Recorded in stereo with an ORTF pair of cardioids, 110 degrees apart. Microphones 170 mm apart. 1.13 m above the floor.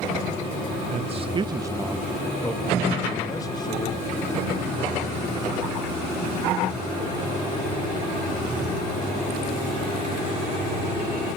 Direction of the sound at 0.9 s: 40° right.